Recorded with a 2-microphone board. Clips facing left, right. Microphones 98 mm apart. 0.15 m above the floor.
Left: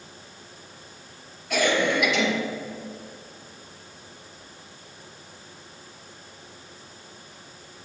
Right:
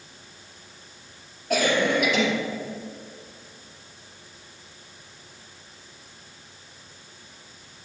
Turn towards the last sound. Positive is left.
turn(degrees=-40)  # may be behind; listen again after turning